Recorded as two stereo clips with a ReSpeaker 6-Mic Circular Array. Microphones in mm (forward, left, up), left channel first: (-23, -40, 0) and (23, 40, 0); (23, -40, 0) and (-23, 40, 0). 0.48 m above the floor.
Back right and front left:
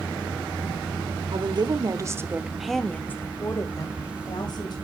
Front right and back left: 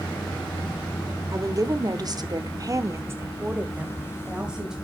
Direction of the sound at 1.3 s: 75° left.